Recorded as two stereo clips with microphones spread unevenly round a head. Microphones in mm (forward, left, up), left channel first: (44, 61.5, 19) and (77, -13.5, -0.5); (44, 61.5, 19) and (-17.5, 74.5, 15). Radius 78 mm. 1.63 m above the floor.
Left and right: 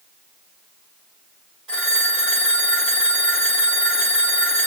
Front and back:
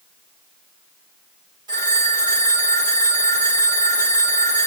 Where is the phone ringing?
160° right, 3 m.